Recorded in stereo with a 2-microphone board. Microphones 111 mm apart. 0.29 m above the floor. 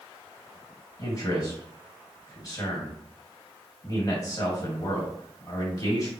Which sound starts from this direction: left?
A man speaking, at 1.0 s.